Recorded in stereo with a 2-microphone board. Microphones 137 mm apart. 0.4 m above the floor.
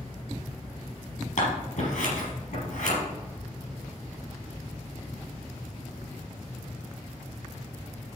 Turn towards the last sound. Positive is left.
turn(degrees=70)  # may be behind; listen again after turning